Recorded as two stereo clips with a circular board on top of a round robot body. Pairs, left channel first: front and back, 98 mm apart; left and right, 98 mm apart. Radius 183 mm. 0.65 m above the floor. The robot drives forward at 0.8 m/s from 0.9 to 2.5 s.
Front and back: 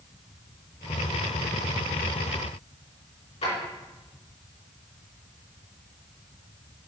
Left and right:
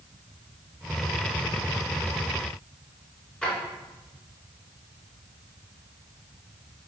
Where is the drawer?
10° left, 4 m.